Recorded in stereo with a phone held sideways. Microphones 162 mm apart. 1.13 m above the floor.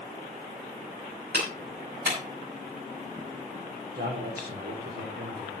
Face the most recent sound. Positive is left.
turn(degrees=-80)